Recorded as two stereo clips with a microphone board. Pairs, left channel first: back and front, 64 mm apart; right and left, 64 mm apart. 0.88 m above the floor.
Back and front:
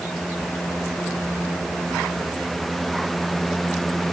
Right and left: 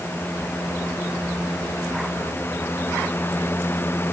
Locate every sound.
Only background noise.